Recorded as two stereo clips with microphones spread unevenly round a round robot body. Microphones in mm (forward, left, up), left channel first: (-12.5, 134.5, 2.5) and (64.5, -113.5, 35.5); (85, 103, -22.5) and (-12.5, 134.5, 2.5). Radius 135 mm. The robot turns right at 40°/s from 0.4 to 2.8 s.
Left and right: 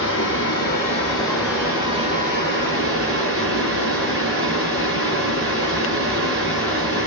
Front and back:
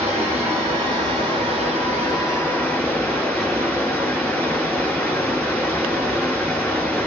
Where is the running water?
150° left, 1.6 m; by 7.1 s 115° right, 1.6 m.